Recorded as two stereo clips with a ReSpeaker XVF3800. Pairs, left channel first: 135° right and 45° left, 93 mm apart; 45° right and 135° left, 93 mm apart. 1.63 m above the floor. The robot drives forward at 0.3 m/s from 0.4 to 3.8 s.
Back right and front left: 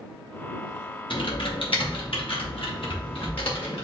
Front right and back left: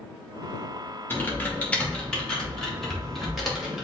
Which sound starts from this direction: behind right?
Typing on a keyboard, at 1.1 s.